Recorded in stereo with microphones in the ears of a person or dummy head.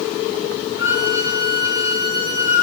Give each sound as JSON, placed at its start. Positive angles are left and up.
{"t": 0.8, "sound": "a violin", "side_deg": -20, "distance_m": 2.5}